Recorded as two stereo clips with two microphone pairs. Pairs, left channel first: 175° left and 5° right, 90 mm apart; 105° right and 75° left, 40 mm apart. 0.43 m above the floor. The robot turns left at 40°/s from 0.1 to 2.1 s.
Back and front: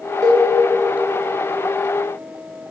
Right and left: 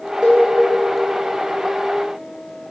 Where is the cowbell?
30° left, 1.3 m; by 0.5 s 20° left, 1.3 m.